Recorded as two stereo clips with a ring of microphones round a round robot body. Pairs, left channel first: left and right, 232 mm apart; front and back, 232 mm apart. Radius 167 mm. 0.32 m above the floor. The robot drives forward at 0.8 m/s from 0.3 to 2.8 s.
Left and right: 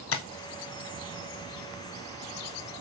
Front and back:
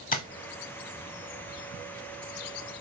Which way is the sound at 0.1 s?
60° left.